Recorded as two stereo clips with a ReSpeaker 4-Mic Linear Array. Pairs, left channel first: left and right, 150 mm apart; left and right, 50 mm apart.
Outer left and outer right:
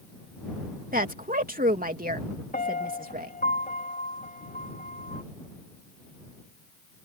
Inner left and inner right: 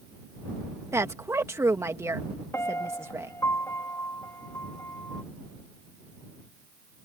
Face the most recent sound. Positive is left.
turn(degrees=85)